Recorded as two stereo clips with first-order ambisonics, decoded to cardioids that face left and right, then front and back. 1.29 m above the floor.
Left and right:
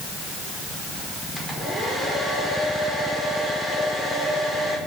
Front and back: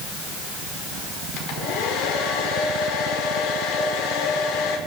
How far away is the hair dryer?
About 5 m.